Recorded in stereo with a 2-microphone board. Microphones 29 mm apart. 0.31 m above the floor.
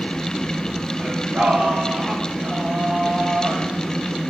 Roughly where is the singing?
Right.